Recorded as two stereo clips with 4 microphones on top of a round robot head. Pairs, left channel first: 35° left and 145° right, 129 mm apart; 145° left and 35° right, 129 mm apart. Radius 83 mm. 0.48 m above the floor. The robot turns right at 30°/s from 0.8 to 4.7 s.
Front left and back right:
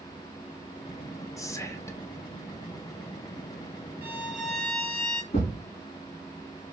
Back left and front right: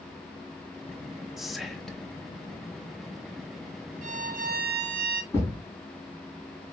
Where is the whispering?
45° left, 0.7 m; by 2.1 s 70° left, 0.7 m.